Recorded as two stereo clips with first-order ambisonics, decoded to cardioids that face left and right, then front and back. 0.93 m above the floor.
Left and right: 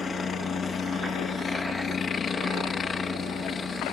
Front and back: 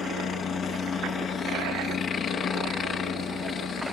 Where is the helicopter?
35° left.